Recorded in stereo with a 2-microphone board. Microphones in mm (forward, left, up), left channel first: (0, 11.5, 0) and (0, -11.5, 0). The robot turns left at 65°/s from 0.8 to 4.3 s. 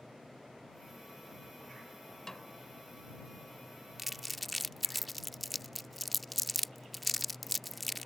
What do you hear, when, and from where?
2.3 s a snare drum: 20° left (ahead or behind); by 2.5 s 5° left (ahead or behind)
4.0 s crumpling: 10° right (ahead or behind); by 8.1 s 5° left (ahead or behind)